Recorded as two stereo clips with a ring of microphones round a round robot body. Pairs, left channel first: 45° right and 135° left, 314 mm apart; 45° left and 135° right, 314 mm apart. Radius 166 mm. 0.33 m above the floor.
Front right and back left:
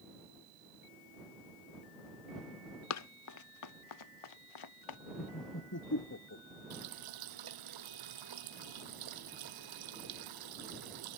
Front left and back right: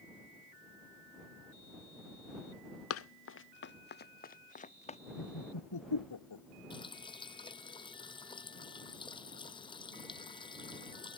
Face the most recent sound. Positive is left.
turn(degrees=120)